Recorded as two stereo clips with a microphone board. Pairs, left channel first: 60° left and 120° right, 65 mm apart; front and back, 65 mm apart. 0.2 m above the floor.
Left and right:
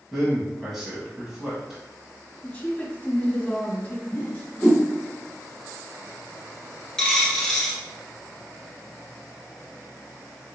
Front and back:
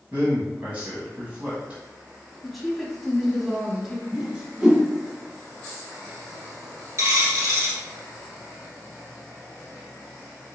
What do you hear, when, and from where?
0.1 s a man speaking: 165° left, 1.5 m
2.4 s a woman speaking: 95° left, 1.2 m
4.1 s a whoosh: 120° left, 1.5 m
7.0 s a dropped coin: 140° left, 1.5 m